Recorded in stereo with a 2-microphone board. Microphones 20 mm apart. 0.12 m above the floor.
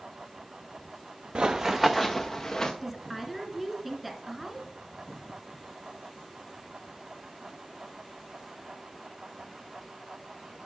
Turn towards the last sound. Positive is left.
turn(degrees=-10)  # may be behind; listen again after turning